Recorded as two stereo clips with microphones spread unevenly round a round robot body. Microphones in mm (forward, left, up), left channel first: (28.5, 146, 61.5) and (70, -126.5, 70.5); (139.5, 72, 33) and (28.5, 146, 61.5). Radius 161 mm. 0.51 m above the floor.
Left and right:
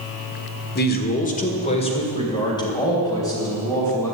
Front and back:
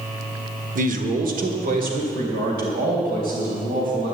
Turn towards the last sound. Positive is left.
turn(degrees=180)